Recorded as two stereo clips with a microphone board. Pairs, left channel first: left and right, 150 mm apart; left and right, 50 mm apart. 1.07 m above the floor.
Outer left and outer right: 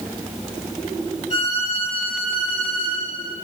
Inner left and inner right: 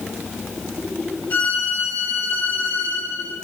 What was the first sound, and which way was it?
A violin, 45° left (ahead or behind).